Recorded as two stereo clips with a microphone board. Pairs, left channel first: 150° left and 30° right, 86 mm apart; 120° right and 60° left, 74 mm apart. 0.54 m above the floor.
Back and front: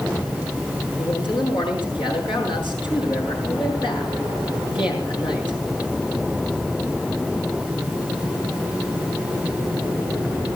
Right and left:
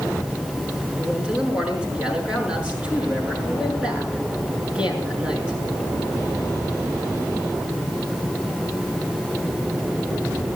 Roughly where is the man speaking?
Behind left.